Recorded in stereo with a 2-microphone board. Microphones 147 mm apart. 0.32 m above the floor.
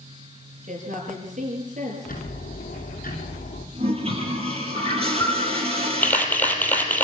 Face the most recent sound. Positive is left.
turn(degrees=10)  # may be behind; listen again after turning